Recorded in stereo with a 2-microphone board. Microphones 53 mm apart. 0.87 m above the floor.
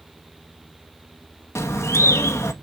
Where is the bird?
60° left (ahead or behind), 0.6 m.